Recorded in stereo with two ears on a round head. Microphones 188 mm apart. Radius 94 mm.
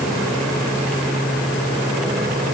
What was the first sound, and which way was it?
Only background noise.